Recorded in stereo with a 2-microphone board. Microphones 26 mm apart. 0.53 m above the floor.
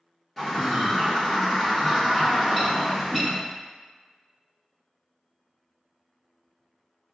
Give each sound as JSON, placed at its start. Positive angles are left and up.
{"t": 0.4, "sound": "a bird", "side_deg": 0, "distance_m": 1.3}